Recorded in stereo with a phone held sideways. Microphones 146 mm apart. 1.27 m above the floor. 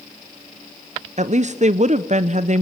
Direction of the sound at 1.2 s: 55° right (ahead or behind).